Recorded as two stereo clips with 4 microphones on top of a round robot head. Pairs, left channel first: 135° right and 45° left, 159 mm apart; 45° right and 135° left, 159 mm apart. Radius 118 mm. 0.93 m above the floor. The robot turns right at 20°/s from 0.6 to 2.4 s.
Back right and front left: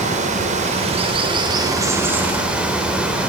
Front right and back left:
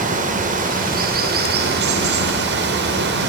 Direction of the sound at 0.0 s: 95° left.